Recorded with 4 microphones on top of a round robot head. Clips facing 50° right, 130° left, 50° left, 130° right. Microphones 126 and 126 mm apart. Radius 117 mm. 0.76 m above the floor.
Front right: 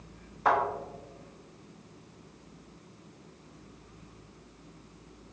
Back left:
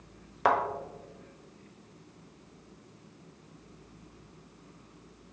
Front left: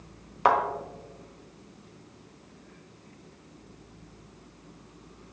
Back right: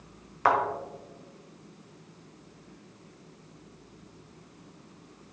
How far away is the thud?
About 1.2 m.